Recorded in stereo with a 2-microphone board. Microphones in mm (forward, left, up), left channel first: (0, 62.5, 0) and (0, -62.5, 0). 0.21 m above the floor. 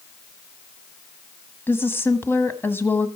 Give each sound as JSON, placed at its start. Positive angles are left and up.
{"t": 1.7, "sound": "a woman speaking", "side_deg": 20, "distance_m": 1.4}